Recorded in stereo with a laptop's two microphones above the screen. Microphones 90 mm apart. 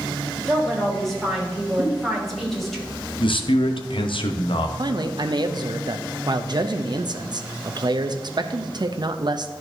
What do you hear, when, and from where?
0.5 s a woman speaking: centre (ahead or behind), 2.5 m
1.8 s a giggle: 70° right (ahead or behind), 1.8 m
3.2 s a man speaking: 70° left (ahead or behind), 0.8 m
4.8 s a man speaking: 55° right (ahead or behind), 0.6 m